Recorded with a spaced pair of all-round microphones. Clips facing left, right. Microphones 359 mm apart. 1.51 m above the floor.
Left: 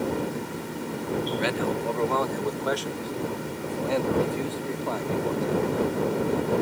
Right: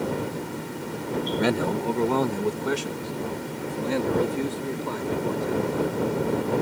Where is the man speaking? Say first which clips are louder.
Right 3 dB; 55° right (ahead or behind); by 5.9 s 20° right (ahead or behind).